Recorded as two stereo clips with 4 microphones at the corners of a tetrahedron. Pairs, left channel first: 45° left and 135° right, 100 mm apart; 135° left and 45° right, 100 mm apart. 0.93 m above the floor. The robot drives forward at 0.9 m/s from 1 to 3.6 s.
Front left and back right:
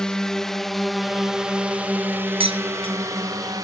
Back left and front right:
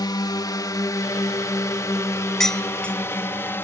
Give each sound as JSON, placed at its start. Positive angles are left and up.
{"t": 0.0, "sound": "a drone", "azimuth_deg": 125}
{"t": 2.4, "sound": "dishes clattering", "azimuth_deg": -140}